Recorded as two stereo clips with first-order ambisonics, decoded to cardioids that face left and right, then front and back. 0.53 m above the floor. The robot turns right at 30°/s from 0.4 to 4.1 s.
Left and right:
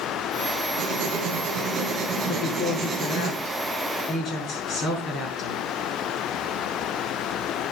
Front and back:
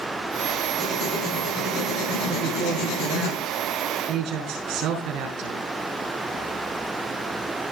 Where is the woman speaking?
95° left, 6 m; by 5.6 s 150° left, 6 m.